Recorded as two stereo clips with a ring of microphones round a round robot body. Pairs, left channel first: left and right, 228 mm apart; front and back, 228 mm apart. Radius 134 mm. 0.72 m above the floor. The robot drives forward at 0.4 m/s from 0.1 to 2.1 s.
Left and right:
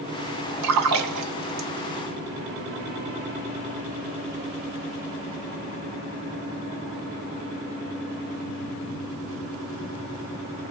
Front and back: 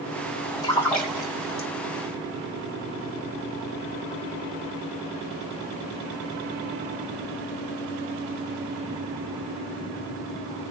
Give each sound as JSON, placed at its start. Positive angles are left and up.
{"t": 0.6, "sound": "a splash", "azimuth_deg": -80, "distance_m": 1.0}